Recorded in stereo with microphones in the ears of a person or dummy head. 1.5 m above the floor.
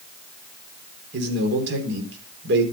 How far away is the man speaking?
About 4 m.